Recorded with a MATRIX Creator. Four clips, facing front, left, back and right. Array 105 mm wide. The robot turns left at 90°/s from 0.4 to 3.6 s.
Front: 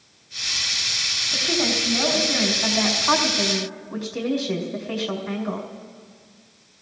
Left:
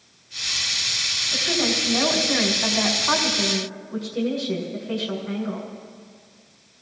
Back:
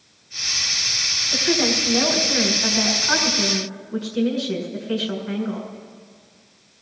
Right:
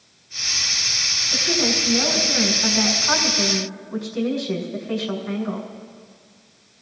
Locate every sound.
1.3 s a woman speaking: 165° right, 4.5 m; by 5.7 s 10° right, 4.5 m